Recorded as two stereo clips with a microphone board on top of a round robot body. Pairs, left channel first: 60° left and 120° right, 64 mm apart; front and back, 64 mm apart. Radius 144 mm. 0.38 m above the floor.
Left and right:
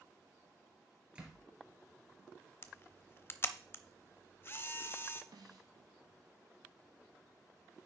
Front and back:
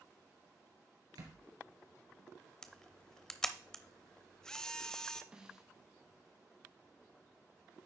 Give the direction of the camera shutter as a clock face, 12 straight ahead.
10 o'clock.